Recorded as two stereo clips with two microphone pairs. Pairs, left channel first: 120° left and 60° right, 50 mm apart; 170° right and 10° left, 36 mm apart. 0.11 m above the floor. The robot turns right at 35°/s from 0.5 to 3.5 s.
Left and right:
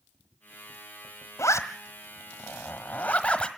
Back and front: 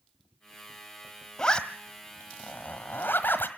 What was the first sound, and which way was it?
A zipper, 125° left.